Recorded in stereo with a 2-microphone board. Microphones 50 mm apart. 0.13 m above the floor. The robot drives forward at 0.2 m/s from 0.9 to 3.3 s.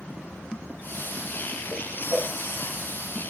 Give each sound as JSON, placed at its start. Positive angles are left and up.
{"t": 1.7, "sound": "a whoosh", "side_deg": -15, "distance_m": 0.6}